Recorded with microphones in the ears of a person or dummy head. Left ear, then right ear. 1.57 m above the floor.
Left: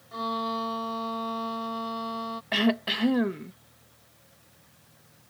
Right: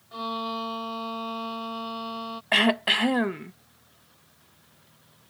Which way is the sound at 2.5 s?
25° right (ahead or behind).